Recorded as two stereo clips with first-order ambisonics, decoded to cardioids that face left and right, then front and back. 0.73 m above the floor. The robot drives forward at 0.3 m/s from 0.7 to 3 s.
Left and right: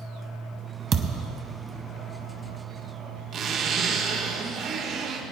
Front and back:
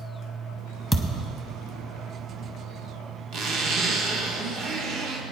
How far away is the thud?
About 0.6 m.